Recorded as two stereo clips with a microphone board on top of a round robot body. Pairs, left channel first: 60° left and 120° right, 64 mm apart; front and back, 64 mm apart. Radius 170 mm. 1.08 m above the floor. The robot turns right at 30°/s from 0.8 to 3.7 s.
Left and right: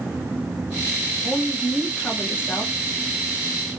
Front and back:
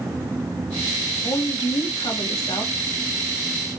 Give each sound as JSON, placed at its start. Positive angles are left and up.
{"t": 1.2, "sound": "a woman speaking", "azimuth_deg": -35, "distance_m": 1.4}